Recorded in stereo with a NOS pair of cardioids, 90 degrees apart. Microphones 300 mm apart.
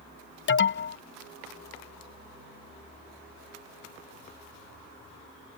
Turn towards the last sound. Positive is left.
turn(degrees=40)